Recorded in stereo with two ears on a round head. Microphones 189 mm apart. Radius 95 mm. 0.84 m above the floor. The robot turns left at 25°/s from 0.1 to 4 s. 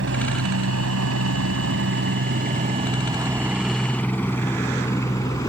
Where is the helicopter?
60° right (ahead or behind); by 5.5 s 15° left (ahead or behind).